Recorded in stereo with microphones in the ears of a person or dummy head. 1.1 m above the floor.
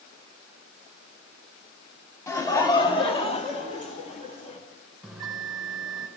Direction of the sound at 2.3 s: 25° left (ahead or behind).